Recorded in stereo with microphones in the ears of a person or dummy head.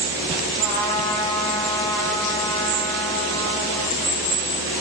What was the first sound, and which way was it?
A trumpet, 60° left (ahead or behind).